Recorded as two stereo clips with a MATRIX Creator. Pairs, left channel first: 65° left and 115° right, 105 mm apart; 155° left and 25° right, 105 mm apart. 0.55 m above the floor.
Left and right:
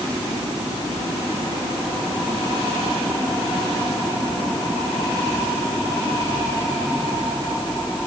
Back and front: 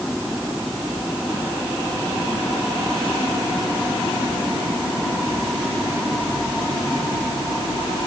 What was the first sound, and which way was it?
Only background noise.